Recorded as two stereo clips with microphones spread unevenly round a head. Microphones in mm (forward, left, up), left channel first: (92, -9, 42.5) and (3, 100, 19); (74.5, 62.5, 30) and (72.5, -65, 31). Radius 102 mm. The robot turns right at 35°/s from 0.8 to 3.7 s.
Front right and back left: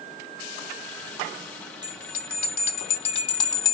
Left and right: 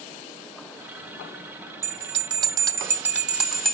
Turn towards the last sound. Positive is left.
turn(degrees=5)